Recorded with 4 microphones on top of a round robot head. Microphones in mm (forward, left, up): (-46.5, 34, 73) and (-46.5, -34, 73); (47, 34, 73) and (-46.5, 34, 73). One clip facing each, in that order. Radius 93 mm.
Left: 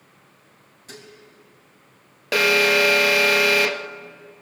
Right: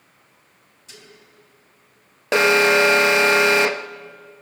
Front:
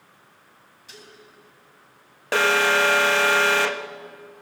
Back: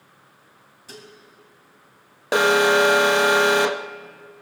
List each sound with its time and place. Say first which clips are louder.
0.9 s dishes clattering: left 4 dB, back 4 dB; 130° left, 3.5 m
2.3 s an alarm: right 3 dB, back 3 dB; 130° right, 0.8 m